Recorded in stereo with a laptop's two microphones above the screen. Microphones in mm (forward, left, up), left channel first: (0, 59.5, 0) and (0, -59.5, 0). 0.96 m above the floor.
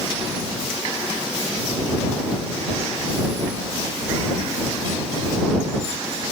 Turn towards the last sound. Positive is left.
No sound to turn to.